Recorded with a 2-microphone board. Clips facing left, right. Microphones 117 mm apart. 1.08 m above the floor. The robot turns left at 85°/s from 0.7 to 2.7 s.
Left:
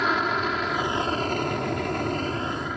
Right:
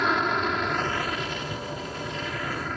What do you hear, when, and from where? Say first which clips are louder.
0.0 s an aircraft: even; straight behind; by 2.8 s 10° left